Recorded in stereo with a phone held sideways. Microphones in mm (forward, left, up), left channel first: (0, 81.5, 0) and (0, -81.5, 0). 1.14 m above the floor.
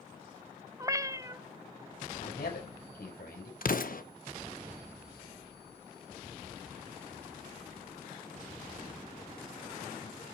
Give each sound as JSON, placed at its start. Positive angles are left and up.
{"t": 0.8, "sound": "a cat meowing", "side_deg": -20, "distance_m": 0.5}
{"t": 2.2, "sound": "a man speaking", "side_deg": 90, "distance_m": 5.0}
{"t": 3.6, "sound": "an explosion", "side_deg": 65, "distance_m": 1.0}